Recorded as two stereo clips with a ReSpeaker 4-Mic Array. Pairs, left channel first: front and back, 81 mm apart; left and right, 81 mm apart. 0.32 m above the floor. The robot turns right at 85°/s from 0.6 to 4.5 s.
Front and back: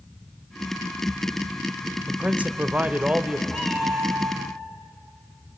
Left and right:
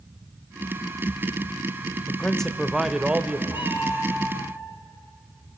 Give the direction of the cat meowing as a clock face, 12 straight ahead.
9 o'clock.